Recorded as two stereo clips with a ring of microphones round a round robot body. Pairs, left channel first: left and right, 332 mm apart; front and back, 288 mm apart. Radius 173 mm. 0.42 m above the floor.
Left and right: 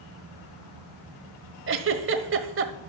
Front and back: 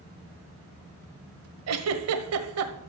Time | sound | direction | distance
1.7 | a giggle | 140° right | 1.4 m